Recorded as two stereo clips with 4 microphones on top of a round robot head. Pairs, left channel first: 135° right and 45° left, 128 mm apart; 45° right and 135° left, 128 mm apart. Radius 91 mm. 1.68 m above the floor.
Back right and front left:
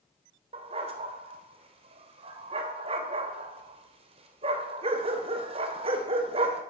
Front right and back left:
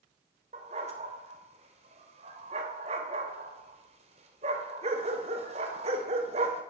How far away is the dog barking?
About 3 m.